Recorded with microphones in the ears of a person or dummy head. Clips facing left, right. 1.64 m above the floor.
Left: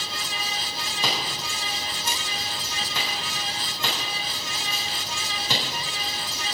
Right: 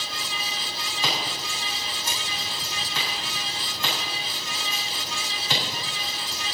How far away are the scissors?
About 8 m.